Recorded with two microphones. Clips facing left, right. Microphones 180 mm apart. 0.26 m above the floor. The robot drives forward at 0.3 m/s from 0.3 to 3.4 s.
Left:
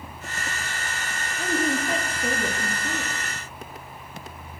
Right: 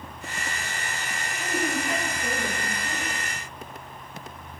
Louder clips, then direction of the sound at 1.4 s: Left 3 dB; 30° left (ahead or behind).